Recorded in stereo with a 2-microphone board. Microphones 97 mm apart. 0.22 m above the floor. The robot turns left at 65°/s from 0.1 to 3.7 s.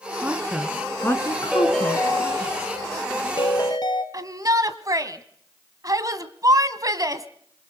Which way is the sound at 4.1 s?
40° right (ahead or behind).